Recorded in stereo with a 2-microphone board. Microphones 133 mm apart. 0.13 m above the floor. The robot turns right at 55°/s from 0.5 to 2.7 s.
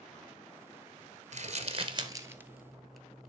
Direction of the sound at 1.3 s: 60° right (ahead or behind).